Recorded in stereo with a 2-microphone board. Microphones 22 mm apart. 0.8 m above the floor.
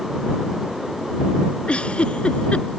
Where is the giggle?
65° left (ahead or behind).